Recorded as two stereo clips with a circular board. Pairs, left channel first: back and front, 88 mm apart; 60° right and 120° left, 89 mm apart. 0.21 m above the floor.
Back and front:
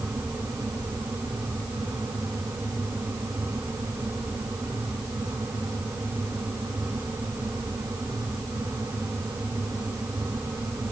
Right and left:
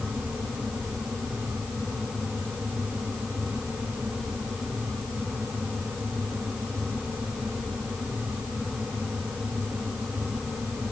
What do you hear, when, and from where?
Only background noise.